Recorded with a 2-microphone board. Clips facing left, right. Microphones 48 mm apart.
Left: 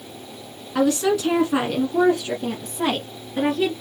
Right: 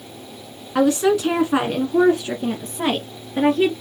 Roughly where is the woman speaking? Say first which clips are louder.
Right 3 dB; centre.